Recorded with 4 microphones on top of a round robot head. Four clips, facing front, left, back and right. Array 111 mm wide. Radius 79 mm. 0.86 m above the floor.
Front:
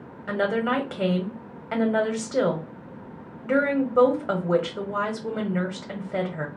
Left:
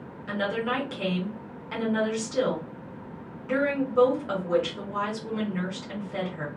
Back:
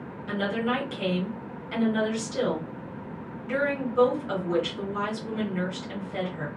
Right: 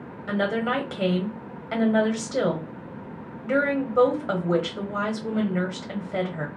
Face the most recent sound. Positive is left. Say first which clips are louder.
# right 3 dB, front 4 dB
turn(degrees=-25)